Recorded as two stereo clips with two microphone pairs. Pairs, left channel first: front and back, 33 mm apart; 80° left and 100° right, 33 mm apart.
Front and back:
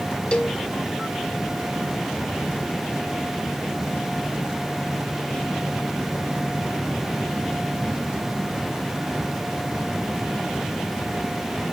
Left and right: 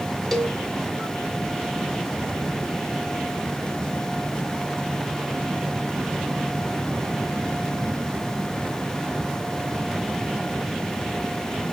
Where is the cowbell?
10° left, 0.9 m.